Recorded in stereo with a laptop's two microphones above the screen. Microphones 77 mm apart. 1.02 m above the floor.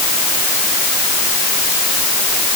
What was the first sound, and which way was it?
Only background noise.